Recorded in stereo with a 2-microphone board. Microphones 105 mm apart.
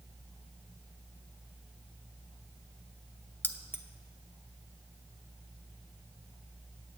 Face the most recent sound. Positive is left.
turn(degrees=20)  # may be behind; listen again after turning